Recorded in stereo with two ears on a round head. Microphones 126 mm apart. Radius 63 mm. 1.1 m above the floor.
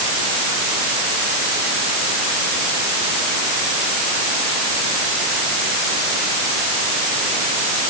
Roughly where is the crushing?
I don't hear crushing.